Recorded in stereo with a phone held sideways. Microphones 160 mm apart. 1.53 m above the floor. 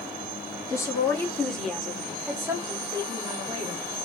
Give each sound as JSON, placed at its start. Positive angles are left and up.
{"t": 0.7, "sound": "a woman speaking", "side_deg": 20, "distance_m": 3.0}